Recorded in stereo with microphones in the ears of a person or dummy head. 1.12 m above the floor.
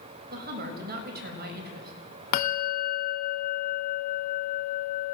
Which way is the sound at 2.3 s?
60° left (ahead or behind).